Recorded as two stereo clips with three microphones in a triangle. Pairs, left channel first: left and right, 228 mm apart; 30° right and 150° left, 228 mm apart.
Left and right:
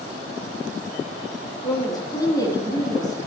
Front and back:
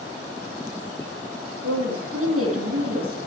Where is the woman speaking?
165° left, 2.5 m.